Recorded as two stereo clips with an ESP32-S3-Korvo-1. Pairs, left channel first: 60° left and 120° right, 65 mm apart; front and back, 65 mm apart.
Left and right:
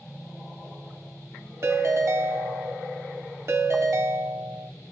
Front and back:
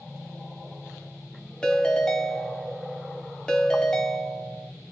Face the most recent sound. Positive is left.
turn(degrees=-80)